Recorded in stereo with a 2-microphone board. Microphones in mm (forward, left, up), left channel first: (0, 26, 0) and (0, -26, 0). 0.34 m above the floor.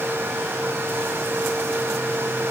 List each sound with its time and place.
Only background noise.